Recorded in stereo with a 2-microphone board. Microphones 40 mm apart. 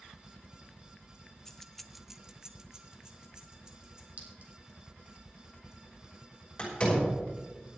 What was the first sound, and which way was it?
Keys jangling, 10° left (ahead or behind).